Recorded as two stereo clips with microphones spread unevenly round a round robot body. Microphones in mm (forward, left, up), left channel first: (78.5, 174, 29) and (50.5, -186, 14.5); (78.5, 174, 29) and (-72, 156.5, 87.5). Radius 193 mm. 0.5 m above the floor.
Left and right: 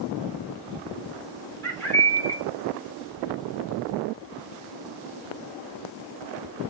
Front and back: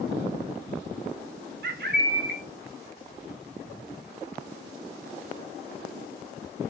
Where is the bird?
170° left, 2 m.